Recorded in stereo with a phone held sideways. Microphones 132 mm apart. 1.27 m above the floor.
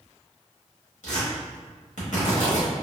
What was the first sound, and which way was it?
Tearing paper, 75° left (ahead or behind).